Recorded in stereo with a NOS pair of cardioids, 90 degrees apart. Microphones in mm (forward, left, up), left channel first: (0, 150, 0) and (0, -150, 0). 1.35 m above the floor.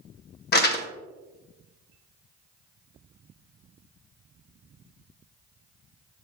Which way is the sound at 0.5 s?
35° left.